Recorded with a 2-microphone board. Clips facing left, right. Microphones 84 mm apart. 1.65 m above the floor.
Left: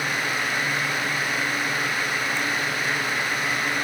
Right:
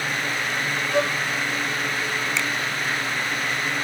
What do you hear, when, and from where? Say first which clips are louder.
0.9 s a violin: right 5 dB; 70° right (ahead or behind)
2.4 s a finger snap: right 1 dB; 85° right